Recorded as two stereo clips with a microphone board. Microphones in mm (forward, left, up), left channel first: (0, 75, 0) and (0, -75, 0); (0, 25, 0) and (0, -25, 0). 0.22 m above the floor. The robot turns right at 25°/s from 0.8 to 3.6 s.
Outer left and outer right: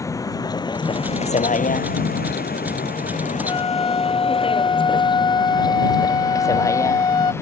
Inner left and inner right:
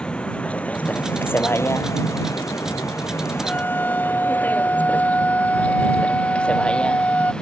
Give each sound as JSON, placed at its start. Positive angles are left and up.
{"t": 0.0, "sound": "a vehicle", "side_deg": 20}
{"t": 3.5, "sound": "a flute", "side_deg": 35}